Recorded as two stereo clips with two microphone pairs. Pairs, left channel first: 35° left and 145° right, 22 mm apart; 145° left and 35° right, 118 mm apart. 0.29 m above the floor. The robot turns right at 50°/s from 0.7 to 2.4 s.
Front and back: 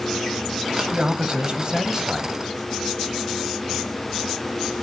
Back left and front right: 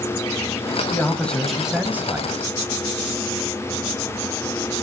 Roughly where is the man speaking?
Behind.